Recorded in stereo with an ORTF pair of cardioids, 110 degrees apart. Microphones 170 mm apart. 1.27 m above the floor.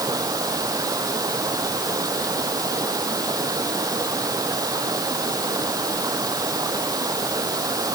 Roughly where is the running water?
Ahead.